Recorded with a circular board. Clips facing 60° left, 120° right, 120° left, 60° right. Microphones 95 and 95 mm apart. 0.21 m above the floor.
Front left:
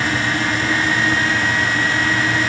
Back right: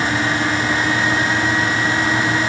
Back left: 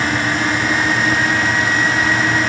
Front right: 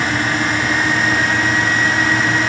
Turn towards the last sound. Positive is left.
No sound to turn to.